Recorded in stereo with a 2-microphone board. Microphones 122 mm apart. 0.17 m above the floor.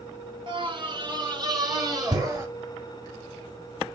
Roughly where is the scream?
Right.